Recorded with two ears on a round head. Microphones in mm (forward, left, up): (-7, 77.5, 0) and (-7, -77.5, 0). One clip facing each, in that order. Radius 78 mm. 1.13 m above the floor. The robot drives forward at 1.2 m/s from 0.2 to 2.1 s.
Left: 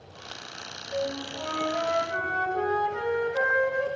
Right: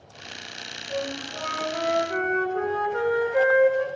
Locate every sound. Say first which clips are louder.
0.9 s a flute: even; 75° right (ahead or behind), 7.5 m; by 3.9 s 65° right (ahead or behind), 8 m